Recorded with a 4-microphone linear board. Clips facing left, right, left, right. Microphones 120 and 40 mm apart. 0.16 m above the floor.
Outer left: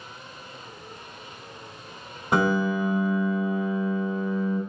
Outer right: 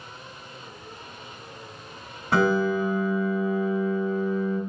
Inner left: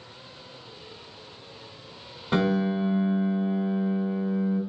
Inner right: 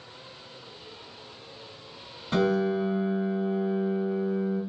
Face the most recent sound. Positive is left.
turn(degrees=20)  # may be behind; listen again after turning